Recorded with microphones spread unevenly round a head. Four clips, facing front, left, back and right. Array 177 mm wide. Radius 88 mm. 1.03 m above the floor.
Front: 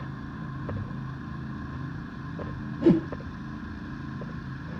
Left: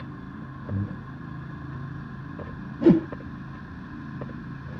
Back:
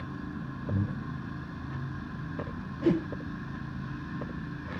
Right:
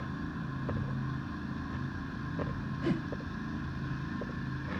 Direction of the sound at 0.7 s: 130° left.